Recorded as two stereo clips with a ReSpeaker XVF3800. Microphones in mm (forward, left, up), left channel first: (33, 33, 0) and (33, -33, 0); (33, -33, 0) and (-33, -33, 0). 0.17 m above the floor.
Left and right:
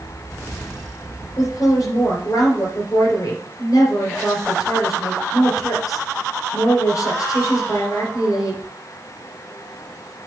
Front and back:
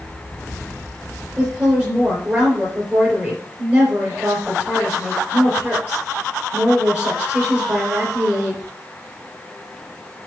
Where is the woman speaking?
115° left, 4 m.